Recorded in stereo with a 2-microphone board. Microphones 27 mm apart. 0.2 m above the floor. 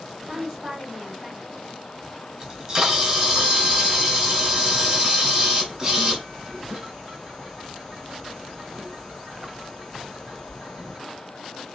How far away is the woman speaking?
About 1.6 m.